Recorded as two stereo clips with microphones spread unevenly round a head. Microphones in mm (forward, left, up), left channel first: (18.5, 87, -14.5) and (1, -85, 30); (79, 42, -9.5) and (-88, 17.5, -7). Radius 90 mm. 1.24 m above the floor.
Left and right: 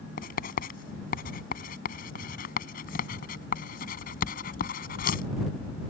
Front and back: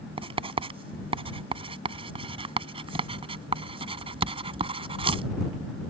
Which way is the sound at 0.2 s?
135° left.